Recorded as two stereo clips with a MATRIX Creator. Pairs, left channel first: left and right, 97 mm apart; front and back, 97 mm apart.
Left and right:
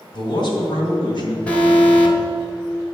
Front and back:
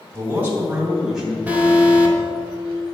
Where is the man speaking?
115° left, 3 m; by 1.4 s 90° left, 2.5 m.